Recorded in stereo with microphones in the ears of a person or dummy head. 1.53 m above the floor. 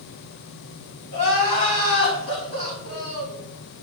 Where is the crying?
75° left (ahead or behind), 3.5 m.